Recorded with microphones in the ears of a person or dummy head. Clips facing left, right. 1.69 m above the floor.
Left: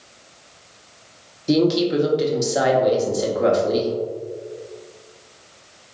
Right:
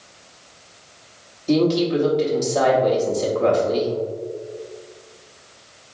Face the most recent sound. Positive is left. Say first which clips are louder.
# even
turn(degrees=15)  # may be behind; listen again after turning